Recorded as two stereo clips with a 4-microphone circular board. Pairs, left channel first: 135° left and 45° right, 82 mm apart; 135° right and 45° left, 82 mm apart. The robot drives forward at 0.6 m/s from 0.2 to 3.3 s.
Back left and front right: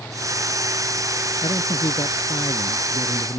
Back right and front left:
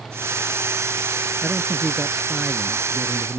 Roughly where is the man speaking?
Behind left.